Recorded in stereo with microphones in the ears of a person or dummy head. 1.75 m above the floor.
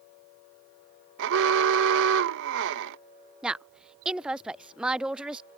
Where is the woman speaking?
Centre (ahead or behind).